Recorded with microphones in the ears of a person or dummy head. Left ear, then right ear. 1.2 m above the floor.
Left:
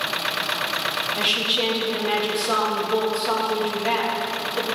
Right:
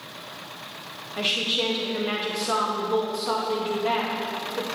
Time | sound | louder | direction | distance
1.2 | a woman speaking | left 1 dB | 10° left (ahead or behind) | 1.9 m